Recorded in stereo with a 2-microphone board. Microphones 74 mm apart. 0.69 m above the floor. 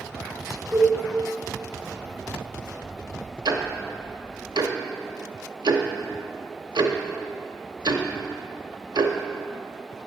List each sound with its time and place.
0.7 s a cowbell: 40° left (ahead or behind), 1.2 m
3.5 s ticking: 75° right (ahead or behind), 0.6 m